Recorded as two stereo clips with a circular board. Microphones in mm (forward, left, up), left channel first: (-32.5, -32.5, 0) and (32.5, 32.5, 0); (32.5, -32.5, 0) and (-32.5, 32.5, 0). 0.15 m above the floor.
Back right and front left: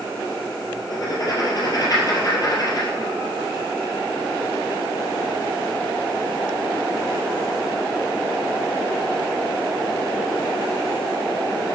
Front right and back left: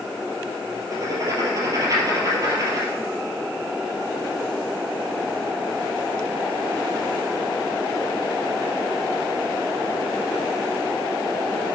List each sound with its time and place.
0.9 s writing: 175° right, 2.5 m